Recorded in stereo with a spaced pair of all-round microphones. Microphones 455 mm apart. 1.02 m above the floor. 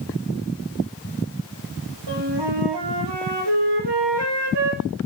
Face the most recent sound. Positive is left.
turn(degrees=-60)  # may be behind; listen again after turning